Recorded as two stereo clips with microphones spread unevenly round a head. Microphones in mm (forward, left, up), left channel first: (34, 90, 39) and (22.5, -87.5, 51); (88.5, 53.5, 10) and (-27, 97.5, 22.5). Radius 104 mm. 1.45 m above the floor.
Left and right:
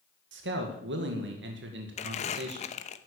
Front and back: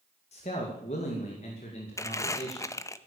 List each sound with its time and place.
0.3 s a man speaking: 75° right, 2 m
2.0 s crumpling: 40° left, 0.8 m